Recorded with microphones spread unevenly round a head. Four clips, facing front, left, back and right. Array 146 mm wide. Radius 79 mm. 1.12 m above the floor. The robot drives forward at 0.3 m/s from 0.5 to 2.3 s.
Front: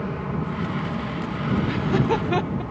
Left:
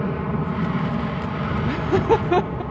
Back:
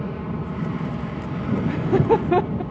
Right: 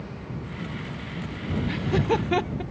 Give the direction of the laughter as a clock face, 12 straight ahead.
7 o'clock.